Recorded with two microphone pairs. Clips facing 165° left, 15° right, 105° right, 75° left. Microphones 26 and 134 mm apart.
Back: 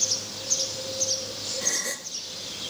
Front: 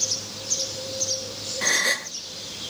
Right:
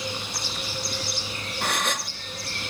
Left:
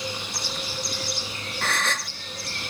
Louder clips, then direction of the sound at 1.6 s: Front 10 dB, even; 30° right.